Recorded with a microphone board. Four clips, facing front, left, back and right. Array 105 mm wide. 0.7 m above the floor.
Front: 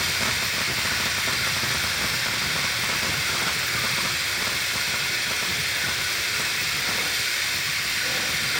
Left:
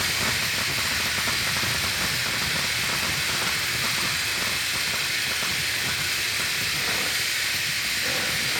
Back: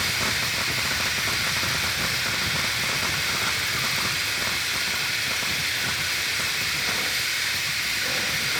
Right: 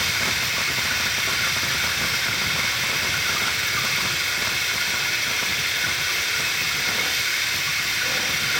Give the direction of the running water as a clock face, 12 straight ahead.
3 o'clock.